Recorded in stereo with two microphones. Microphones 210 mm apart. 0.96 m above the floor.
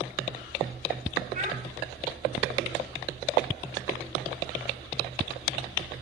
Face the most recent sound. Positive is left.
turn(degrees=-35)  # may be behind; listen again after turning